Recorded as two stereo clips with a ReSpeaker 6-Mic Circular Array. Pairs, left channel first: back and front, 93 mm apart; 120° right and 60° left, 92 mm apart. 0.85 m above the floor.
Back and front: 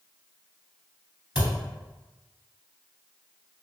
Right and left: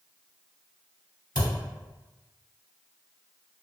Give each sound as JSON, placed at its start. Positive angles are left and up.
{"t": 1.4, "sound": "a thud", "azimuth_deg": -80, "distance_m": 1.5}